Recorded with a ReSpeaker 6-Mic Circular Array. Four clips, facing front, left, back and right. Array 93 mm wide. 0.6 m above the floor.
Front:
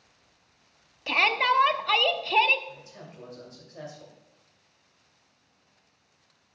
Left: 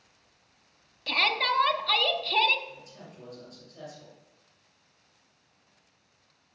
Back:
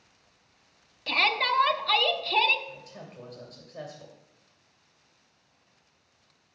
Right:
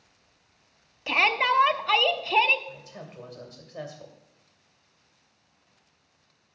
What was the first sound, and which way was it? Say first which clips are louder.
A shout: right 4 dB, front 3 dB; 65° right.